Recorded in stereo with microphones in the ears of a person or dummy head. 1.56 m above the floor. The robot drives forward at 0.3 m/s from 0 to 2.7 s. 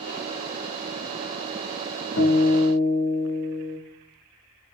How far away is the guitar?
About 0.6 m.